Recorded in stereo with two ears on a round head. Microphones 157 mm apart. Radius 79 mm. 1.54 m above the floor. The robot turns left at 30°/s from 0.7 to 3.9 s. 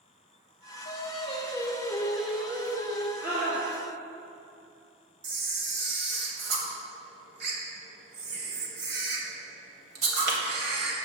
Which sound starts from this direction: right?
A camera shutter, at 5.2 s.